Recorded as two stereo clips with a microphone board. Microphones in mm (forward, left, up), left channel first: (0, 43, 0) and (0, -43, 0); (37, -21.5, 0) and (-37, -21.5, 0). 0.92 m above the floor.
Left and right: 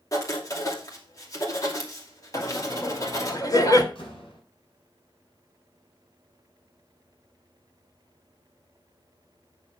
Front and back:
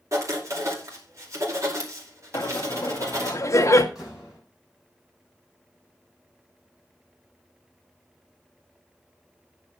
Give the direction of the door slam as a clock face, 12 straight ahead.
9 o'clock.